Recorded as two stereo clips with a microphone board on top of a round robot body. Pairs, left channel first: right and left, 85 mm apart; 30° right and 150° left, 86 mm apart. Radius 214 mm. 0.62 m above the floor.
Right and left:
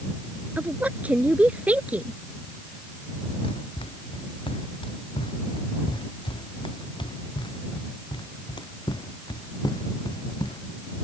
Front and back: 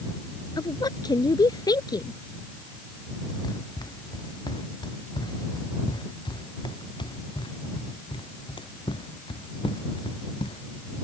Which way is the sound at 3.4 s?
70° right.